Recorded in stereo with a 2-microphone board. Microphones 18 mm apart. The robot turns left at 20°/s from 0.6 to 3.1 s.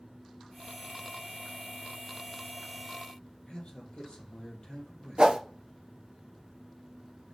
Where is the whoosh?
45° right (ahead or behind), 1.3 m.